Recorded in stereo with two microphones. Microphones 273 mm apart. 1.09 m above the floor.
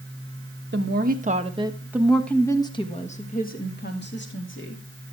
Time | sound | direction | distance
0.7 | a woman speaking | 40° right (ahead or behind) | 1.3 m